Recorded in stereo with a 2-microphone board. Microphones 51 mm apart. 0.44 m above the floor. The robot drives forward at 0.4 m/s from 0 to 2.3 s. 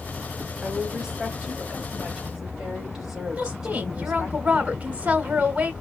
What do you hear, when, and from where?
0.6 s a woman speaking: 10° right (ahead or behind), 1.6 m
3.4 s a woman speaking: 25° right (ahead or behind), 1.2 m